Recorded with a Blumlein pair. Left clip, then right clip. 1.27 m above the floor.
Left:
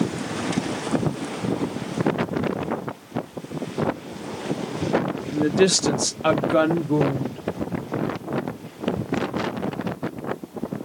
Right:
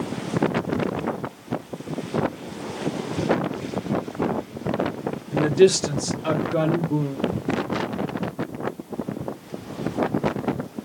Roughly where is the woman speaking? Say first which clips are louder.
Right 2 dB; ahead.